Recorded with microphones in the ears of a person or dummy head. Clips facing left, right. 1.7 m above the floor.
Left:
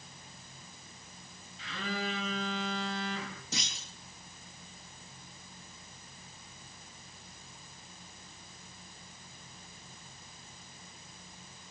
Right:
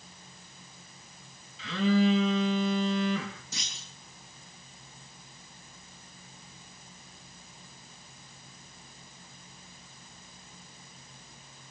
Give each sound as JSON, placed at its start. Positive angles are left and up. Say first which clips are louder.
{"t": 1.6, "sound": "a phone buzzing", "louder": "right 13 dB", "side_deg": -75, "distance_m": 2.5}
{"t": 3.5, "sound": "a clunk", "louder": "left 5 dB", "side_deg": 70, "distance_m": 2.0}